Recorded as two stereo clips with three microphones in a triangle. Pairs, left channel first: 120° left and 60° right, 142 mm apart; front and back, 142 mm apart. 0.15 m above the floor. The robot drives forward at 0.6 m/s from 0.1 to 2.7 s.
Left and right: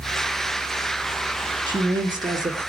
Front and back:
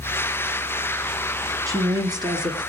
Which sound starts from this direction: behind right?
A woman speaking, at 1.7 s.